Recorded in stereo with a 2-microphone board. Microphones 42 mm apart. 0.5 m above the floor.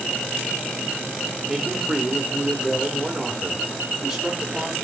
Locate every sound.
1.5 s a man speaking: 10° right (ahead or behind), 1.7 m